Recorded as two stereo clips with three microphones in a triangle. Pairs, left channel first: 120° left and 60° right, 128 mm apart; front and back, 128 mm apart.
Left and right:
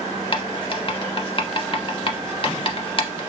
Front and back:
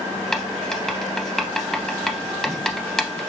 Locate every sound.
0.3 s writing: 85° left, 0.5 m